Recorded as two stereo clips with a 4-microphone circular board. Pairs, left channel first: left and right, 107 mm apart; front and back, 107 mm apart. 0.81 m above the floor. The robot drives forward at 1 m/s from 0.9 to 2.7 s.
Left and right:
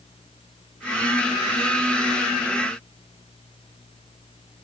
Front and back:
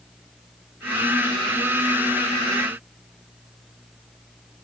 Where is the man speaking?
No man speaking in this recording.